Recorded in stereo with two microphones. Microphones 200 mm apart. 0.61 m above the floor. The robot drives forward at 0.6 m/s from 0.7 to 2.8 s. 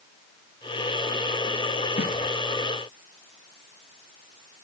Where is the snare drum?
50° left (ahead or behind), 2 m; by 2.1 s 45° left (ahead or behind), 2 m.